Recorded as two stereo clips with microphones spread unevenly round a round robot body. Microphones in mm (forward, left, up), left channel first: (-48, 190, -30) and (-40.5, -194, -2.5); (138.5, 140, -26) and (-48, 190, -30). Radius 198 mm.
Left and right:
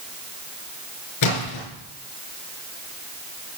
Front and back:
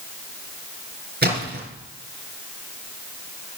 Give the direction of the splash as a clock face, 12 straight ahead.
8 o'clock.